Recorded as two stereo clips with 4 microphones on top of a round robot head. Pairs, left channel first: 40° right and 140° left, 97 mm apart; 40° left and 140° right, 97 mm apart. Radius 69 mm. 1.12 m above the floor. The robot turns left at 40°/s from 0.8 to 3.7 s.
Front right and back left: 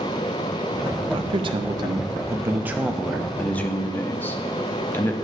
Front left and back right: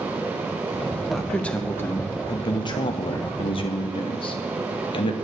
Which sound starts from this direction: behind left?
A man speaking, at 1.1 s.